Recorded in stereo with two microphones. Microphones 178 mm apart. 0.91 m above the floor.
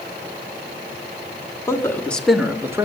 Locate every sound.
1.7 s a man speaking: 15° left (ahead or behind), 2 m; by 2.9 s 20° right (ahead or behind), 1.6 m